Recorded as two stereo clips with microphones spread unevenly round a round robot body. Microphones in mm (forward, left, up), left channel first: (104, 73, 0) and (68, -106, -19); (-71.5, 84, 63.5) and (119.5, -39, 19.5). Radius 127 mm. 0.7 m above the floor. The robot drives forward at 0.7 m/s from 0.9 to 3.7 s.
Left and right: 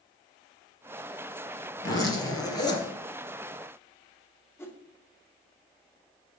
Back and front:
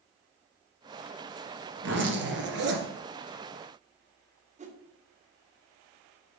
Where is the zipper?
10° left, 3 m; by 2.9 s 15° left, 2 m.